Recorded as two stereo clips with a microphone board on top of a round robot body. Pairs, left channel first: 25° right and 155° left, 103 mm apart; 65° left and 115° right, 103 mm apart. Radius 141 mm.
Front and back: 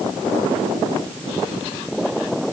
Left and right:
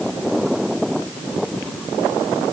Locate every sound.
Only background noise.